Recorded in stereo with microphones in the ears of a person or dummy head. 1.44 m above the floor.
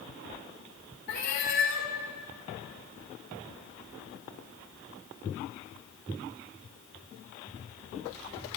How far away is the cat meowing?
About 1.7 m.